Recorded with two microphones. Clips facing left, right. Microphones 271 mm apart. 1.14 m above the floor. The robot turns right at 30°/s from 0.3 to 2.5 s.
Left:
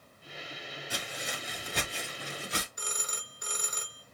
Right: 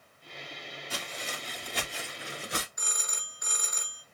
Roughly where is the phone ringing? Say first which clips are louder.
Left 3 dB; left.